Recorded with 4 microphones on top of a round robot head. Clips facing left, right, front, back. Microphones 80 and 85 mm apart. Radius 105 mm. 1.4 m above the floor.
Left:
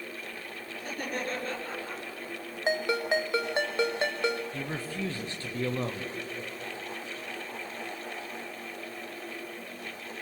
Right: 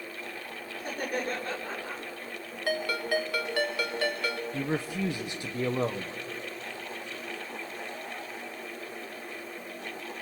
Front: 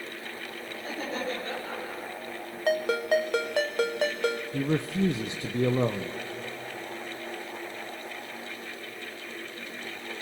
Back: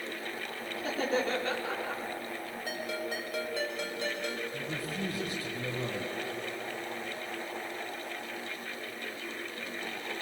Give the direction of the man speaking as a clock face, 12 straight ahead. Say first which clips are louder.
Right 4 dB, front 9 dB; 12 o'clock.